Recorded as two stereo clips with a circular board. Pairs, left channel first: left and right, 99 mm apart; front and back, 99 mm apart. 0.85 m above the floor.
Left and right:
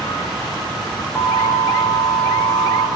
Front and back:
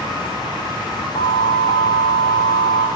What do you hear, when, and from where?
1.1 s an alarm: 15° left, 2 m